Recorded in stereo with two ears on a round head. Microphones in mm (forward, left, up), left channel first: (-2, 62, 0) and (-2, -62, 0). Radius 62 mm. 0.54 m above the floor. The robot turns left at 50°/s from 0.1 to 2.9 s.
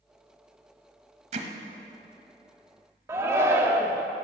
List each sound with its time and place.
1.3 s hammering: 50° right (ahead or behind), 1.2 m; by 1.5 s 60° right (ahead or behind), 1.2 m
3.1 s a shout: 20° right (ahead or behind), 0.7 m